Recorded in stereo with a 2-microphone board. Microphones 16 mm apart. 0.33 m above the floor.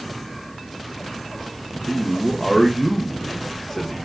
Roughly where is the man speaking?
Left.